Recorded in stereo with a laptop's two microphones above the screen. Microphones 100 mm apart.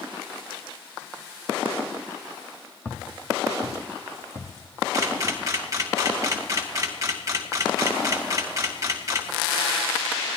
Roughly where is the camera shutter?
Right.